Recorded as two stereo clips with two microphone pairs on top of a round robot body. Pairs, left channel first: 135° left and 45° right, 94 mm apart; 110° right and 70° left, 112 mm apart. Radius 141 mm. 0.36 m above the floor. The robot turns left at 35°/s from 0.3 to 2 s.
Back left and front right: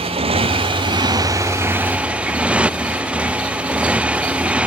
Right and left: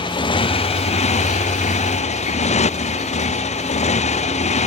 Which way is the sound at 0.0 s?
65° right.